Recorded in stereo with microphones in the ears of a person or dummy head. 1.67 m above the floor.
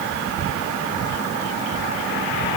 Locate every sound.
Only background noise.